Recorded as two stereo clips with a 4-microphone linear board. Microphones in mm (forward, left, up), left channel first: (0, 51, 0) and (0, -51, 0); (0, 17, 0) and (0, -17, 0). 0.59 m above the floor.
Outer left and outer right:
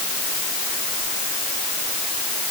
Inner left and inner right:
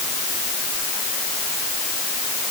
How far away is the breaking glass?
No breaking glass in this recording.